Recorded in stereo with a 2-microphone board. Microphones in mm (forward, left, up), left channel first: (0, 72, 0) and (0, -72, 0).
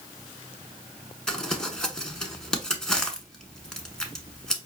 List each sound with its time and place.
1.3 s crumpling: 5° left (ahead or behind), 0.9 m